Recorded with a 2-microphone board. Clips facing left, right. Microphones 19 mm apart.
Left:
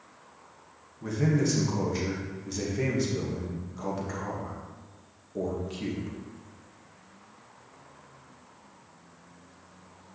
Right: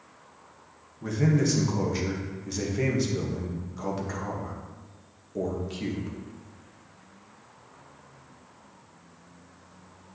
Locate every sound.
1.0 s a man speaking: 15° right (ahead or behind), 1.4 m